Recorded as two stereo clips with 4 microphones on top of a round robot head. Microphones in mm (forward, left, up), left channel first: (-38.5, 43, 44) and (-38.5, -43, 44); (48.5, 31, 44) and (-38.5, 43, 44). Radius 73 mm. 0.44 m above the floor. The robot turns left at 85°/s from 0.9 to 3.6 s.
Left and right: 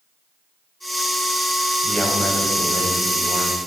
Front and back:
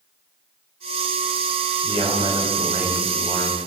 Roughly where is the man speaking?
Behind.